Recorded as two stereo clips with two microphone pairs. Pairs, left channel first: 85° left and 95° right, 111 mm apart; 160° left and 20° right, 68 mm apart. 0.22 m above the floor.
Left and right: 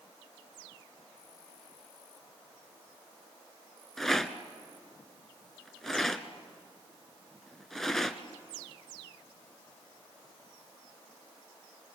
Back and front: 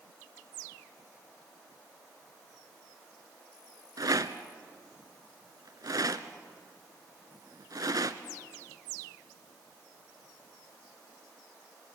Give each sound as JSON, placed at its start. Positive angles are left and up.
{"t": 4.0, "sound": "a rattle", "azimuth_deg": 0, "distance_m": 0.9}